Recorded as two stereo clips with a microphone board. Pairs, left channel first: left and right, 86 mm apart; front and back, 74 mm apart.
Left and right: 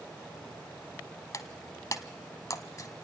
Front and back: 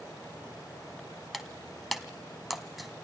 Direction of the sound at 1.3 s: 95° left.